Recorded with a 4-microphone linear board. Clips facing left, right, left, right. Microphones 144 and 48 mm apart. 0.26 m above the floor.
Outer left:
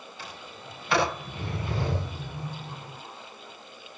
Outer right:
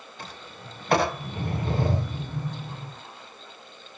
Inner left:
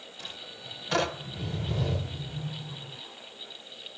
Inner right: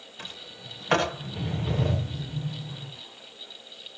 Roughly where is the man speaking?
I don't hear a man speaking.